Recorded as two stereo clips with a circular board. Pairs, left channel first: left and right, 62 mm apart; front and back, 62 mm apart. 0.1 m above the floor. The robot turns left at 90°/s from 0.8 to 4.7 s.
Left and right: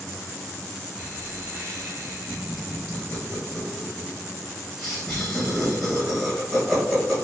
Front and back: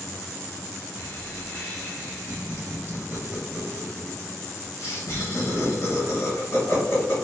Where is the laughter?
20° right, 1.9 m; by 7.1 s 5° left, 1.9 m.